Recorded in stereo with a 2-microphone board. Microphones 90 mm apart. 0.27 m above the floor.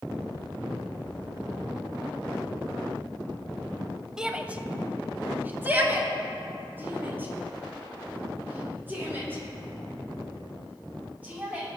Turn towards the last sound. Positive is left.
turn(degrees=-25)  # may be behind; listen again after turning